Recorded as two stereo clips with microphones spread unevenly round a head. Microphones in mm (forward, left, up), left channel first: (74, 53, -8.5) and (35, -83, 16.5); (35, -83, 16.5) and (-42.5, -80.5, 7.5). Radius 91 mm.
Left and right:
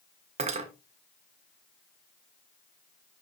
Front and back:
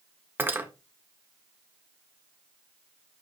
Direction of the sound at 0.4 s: 115° right.